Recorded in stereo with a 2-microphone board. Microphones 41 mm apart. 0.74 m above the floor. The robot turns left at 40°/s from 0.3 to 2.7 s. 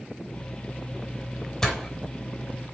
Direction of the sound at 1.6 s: 15° left (ahead or behind).